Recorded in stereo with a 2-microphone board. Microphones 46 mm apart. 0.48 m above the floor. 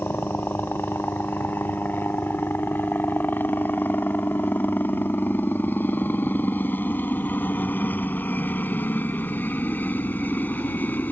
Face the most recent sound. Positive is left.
turn(degrees=40)  # may be behind; listen again after turning